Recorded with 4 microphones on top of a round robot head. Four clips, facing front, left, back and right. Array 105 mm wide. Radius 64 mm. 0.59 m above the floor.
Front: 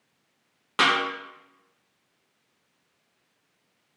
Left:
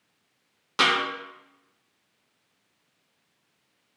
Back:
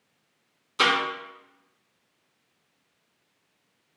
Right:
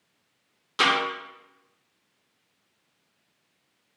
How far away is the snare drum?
About 1.6 m.